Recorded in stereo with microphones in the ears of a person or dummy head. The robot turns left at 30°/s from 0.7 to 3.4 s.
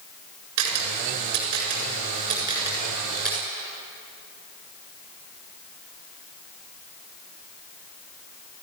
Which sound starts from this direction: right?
A camera shutter, at 0.6 s.